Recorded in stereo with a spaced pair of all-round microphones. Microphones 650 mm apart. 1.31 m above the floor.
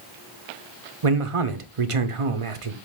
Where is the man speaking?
55° right (ahead or behind), 0.8 m.